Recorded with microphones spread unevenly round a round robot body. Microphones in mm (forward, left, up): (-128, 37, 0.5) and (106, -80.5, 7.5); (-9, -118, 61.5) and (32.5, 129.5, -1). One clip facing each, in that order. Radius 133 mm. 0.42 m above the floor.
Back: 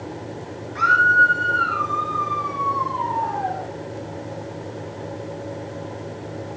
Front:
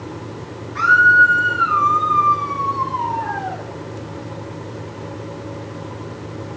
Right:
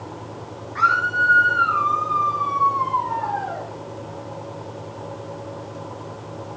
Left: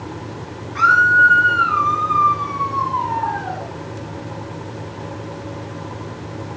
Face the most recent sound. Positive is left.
turn(degrees=35)